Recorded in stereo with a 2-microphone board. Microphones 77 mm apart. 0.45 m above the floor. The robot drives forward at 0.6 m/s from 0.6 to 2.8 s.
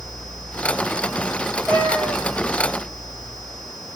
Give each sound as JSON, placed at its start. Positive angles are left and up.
{"t": 1.7, "sound": "a cat meowing", "side_deg": -5, "distance_m": 7.5}